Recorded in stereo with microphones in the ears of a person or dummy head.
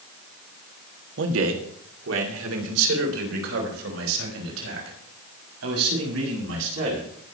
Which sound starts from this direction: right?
A man speaking, at 1.2 s.